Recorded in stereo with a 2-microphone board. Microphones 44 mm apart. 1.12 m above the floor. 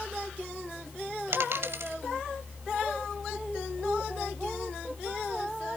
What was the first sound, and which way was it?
A dropped coin, 65° right (ahead or behind).